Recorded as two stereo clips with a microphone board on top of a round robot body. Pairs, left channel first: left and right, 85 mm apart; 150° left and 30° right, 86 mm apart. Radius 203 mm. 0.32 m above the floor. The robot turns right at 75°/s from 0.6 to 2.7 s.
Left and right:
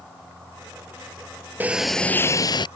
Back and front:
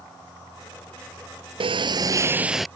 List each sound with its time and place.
1.6 s a sliding door: 20° right; by 2.7 s 60° left